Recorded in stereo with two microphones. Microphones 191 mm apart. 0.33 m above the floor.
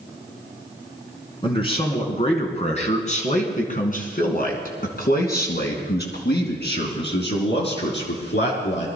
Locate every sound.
1.4 s a man speaking: 25° left (ahead or behind), 3.5 m; by 8.9 s 75° left (ahead or behind), 4 m